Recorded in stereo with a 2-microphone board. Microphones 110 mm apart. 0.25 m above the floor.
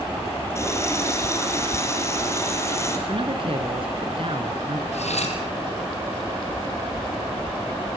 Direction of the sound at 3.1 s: 55° right (ahead or behind).